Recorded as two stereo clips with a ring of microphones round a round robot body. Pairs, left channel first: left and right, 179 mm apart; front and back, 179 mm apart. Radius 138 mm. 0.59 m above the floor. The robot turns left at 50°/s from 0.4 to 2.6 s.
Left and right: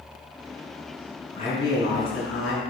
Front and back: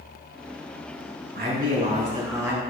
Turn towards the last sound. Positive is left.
turn(degrees=95)